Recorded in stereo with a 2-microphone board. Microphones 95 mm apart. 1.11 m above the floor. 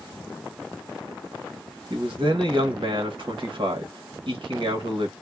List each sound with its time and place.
1.9 s a man speaking: 65° right (ahead or behind), 1.0 m